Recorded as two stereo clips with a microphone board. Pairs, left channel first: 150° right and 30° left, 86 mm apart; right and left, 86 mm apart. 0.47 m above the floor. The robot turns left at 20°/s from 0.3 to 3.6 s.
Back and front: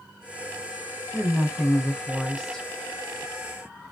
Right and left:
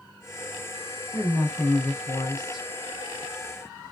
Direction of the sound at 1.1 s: 40° right.